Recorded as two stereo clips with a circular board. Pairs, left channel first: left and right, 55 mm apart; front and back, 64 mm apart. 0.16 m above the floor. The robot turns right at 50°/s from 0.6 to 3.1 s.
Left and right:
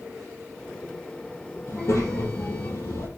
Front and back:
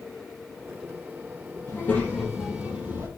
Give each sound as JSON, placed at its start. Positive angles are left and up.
{"t": 1.7, "sound": "a child speaking", "azimuth_deg": 55, "distance_m": 4.0}